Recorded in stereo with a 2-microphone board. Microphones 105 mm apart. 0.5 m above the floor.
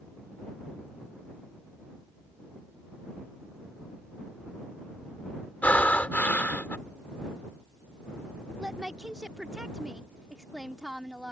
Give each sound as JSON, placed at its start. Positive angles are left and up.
{"t": 5.6, "sound": "breathing", "side_deg": 15}
{"t": 8.6, "sound": "a woman speaking", "side_deg": -5}